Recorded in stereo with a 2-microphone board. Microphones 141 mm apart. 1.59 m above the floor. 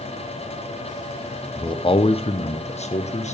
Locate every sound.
1.6 s a man speaking: 30° left (ahead or behind), 0.7 m; by 3.4 s 55° left (ahead or behind), 1.6 m